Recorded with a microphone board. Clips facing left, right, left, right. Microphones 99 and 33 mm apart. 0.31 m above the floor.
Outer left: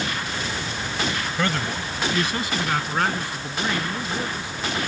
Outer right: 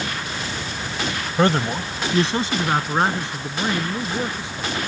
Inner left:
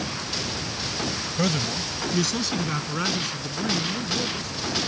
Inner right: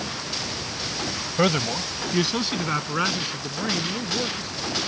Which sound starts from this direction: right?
A man speaking, at 1.4 s.